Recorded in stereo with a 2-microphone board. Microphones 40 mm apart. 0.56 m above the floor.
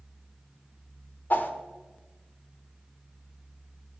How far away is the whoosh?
About 1.2 m.